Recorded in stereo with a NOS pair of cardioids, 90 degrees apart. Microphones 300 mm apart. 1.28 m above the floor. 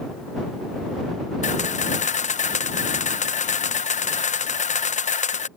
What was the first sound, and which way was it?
A camera shutter, 20° left.